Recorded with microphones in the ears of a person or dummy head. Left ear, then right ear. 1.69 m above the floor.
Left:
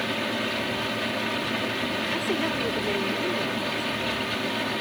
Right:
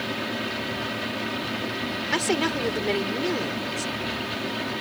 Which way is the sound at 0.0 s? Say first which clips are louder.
Left 2 dB; 15° left (ahead or behind).